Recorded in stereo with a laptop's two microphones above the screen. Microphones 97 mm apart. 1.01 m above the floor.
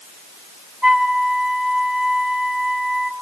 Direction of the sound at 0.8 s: 5° right (ahead or behind).